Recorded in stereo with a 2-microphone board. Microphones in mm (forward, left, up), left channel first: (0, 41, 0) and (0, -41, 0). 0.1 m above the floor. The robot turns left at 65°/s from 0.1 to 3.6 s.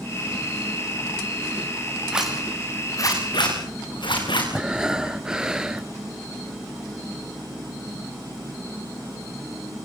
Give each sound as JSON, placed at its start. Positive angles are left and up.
{"t": 2.1, "sound": "a zipper", "side_deg": -15, "distance_m": 7.5}
{"t": 4.5, "sound": "breathing", "side_deg": -10, "distance_m": 1.0}